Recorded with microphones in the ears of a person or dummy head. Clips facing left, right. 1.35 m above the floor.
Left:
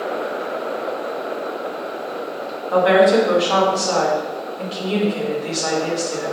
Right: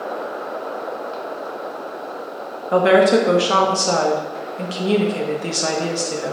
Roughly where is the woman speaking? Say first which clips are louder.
Even; right.